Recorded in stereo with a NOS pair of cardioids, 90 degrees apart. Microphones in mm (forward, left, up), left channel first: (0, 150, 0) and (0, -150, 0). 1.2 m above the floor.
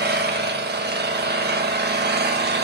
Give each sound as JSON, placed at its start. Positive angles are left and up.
{"t": 0.0, "sound": "an engine running", "azimuth_deg": -35, "distance_m": 1.3}